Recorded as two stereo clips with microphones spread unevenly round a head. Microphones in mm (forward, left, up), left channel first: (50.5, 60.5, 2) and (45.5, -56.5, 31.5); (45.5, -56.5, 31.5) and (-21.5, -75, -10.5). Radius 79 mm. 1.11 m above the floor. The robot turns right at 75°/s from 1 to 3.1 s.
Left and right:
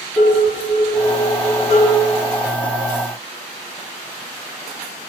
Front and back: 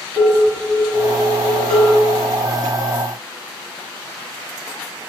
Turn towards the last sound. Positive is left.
turn(degrees=-50)